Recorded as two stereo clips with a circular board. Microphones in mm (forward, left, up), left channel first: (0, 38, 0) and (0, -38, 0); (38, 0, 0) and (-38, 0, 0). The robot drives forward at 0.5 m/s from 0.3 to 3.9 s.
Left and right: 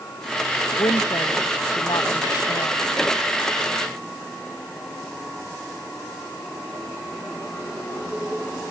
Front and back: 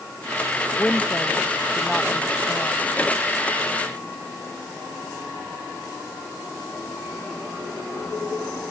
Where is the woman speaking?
75° left; by 2.8 s 80° left.